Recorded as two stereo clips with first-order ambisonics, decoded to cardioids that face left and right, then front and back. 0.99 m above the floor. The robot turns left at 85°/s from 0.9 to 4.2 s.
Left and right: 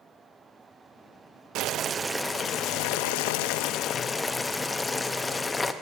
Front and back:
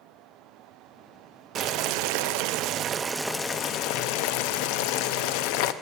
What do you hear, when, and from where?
1.6 s boiling: 125° right, 0.5 m; by 5.7 s 10° left, 0.5 m